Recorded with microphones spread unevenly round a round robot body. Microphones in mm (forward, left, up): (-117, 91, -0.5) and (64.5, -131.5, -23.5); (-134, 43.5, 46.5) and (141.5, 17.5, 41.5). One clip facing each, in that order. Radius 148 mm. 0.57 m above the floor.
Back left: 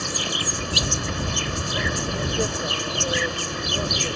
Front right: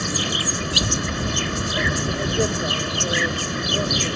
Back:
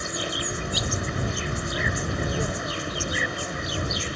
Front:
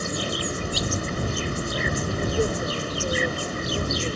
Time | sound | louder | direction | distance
0.0 | an insect | front right 4 dB, front 3 dB | 65° right | ?